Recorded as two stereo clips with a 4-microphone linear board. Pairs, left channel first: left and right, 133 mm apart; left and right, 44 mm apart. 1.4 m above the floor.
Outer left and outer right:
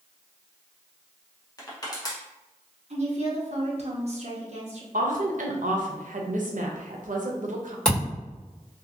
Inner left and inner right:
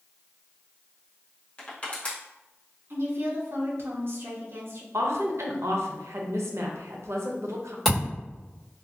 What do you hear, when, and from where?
1.6 s crushing: 30° left (ahead or behind), 0.9 m
2.9 s a woman speaking: 55° right (ahead or behind), 0.8 m
4.9 s a woman speaking: 75° right (ahead or behind), 0.7 m
7.8 s a thud: 5° left (ahead or behind), 1.9 m